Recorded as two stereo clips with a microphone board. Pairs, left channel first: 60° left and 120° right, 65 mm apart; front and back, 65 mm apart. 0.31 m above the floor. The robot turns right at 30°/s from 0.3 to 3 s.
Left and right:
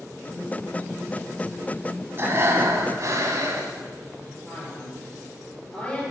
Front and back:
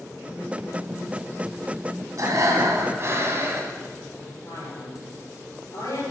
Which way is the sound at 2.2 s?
165° right.